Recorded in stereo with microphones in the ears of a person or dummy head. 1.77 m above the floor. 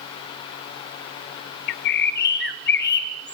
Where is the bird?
50° left (ahead or behind), 0.7 m.